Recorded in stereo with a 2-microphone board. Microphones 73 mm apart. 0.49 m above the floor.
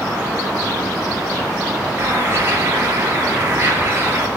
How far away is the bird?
About 2 m.